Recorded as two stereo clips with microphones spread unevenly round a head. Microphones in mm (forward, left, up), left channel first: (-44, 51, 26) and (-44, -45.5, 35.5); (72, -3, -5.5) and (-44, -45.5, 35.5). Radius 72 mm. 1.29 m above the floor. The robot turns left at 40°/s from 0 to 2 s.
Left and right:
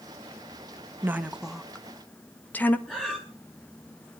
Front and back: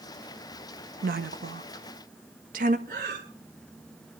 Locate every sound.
1.0 s a woman speaking: 155° right, 1.4 m; by 2.8 s 165° left, 1.4 m
2.9 s breathing: 175° left, 4.5 m